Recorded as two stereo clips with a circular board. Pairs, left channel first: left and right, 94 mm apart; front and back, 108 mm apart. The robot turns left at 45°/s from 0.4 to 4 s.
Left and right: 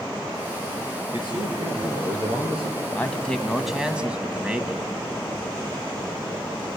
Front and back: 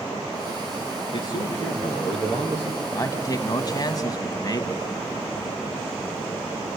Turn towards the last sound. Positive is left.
turn(degrees=-20)